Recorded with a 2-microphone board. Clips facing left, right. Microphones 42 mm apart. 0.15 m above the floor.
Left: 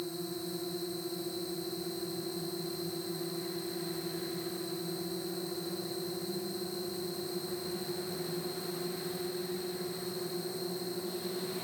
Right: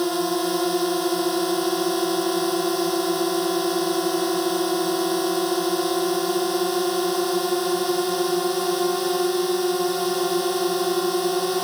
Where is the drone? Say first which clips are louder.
Right 16 dB; 75° right (ahead or behind).